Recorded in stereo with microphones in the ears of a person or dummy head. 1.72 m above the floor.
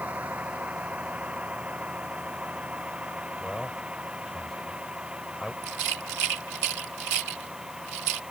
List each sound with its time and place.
0.0 s a vehicle: 5° right (ahead or behind)
3.4 s a man speaking: centre (ahead or behind)
5.6 s a rattle: 60° right (ahead or behind)